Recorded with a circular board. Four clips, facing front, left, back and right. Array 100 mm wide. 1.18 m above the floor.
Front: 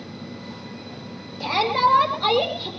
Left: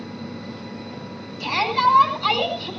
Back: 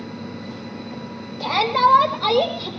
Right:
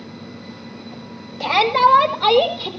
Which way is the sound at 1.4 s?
90° right.